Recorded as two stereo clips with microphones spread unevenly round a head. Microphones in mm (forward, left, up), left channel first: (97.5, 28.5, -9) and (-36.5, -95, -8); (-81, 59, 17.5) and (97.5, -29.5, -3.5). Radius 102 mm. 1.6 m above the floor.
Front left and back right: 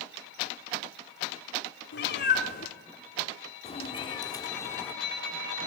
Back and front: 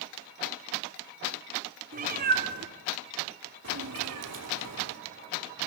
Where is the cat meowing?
25° left, 3 m; by 5.7 s 45° right, 3.5 m.